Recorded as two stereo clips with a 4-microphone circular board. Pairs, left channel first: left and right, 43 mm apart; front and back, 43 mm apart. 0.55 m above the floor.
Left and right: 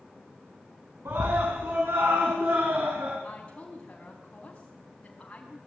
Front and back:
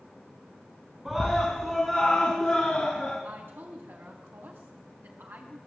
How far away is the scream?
About 5.5 m.